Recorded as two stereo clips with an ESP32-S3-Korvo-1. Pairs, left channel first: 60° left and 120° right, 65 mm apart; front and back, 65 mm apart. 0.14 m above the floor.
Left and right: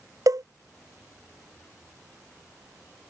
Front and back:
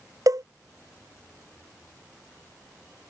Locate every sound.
0.3 s a cowbell: 150° right